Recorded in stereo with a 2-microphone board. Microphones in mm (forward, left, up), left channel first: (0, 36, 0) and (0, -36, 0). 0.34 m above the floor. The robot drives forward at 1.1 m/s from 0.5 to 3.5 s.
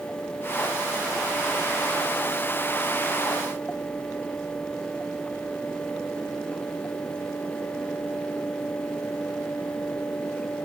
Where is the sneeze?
I don't hear a sneeze.